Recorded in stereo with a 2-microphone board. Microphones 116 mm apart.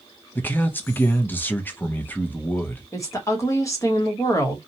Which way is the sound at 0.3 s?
15° left (ahead or behind).